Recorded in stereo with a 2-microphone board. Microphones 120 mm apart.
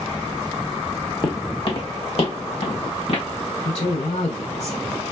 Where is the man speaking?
75° left (ahead or behind), 2.5 m.